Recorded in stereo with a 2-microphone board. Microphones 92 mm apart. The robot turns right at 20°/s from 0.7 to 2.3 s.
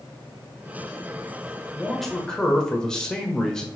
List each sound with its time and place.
1.7 s a man speaking: centre (ahead or behind), 1.1 m; by 3.7 s 5° left (ahead or behind), 1.1 m